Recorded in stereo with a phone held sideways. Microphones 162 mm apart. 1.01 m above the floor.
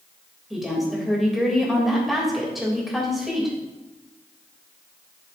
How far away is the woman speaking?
About 3.5 m.